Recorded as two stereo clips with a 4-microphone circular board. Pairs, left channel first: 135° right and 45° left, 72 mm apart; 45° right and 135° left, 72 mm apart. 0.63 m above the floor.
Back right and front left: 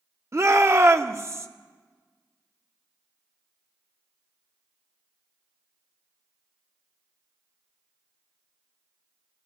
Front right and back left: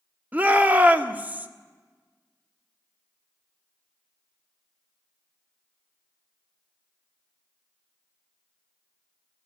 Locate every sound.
0.3 s a shout: 75° left, 1.4 m